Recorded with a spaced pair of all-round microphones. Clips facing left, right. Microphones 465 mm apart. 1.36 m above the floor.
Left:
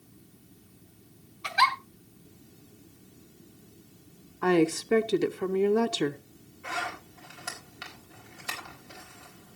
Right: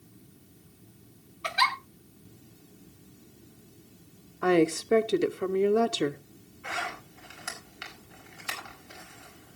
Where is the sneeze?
No sneeze in this recording.